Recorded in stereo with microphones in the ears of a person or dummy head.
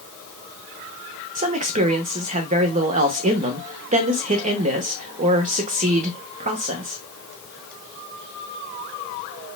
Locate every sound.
1.4 s a man speaking: 40° right (ahead or behind), 0.7 m